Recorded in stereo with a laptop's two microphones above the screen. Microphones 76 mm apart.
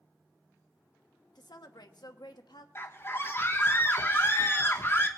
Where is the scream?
35° left (ahead or behind), 1.3 m.